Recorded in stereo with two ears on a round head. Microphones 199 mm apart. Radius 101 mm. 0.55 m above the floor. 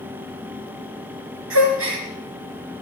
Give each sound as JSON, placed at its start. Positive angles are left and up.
{"t": 1.5, "sound": "a gasp", "side_deg": -65, "distance_m": 3.5}